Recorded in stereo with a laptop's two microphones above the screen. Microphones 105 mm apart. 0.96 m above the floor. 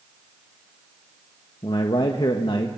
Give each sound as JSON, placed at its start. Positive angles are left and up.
{"t": 1.6, "sound": "a man speaking", "side_deg": 50, "distance_m": 1.3}